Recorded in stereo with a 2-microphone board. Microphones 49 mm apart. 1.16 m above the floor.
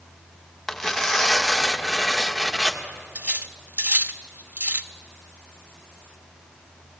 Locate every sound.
0.7 s tearing paper: 10° left (ahead or behind), 1.7 m
3.1 s cutlery clinking: 40° right (ahead or behind), 0.9 m